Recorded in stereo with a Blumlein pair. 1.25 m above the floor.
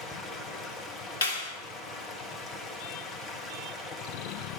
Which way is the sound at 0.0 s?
15° left.